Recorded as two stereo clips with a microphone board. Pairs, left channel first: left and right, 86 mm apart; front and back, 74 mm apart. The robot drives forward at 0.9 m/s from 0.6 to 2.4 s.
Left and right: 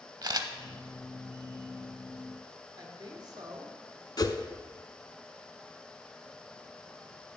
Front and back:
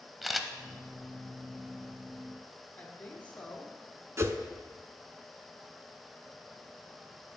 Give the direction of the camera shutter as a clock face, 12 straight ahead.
3 o'clock.